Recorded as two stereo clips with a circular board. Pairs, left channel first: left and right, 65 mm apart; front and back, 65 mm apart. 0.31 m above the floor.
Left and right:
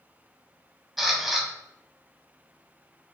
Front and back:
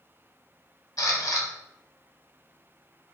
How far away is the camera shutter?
About 0.8 m.